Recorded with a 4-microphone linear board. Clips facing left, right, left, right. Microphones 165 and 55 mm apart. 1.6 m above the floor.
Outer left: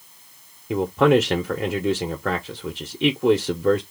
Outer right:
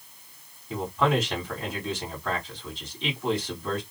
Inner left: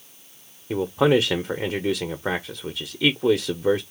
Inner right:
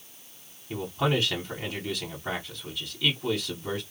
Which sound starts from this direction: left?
A man speaking, at 0.7 s.